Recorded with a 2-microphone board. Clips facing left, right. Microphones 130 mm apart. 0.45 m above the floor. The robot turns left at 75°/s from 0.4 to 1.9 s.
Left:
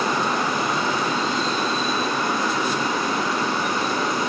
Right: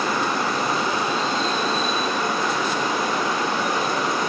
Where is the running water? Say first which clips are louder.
Left 1 dB; 20° left, 1.2 m; by 4.3 s 90° right, 1.2 m.